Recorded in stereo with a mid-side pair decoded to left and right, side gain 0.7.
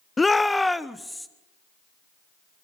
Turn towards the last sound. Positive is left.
turn(degrees=5)